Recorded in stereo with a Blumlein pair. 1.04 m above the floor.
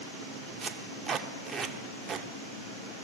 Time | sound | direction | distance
0.6 | tape being pulled | 20° right | 0.8 m